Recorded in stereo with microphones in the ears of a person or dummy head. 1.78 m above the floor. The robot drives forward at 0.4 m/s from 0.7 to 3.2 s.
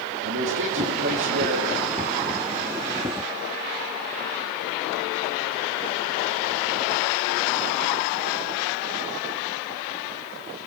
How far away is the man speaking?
About 3.5 m.